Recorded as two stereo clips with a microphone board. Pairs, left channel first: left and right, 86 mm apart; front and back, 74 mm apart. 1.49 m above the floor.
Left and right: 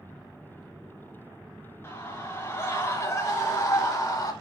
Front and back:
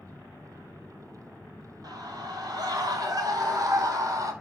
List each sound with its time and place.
1.8 s a scream: 150° left, 7 m; by 4.3 s 140° left, 5.5 m